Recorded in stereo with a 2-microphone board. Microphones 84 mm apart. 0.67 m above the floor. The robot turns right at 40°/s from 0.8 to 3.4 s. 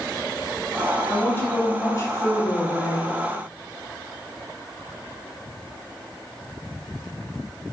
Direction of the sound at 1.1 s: 30° left.